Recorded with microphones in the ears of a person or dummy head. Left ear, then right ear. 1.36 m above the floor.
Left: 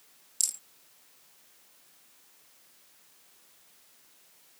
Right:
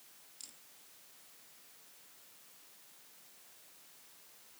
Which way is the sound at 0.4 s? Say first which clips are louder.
Left 22 dB; 45° left (ahead or behind).